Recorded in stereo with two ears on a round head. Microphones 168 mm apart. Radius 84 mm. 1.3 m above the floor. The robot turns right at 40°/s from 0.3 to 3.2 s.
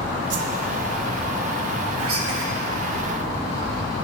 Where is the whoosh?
65° right (ahead or behind), 0.7 m.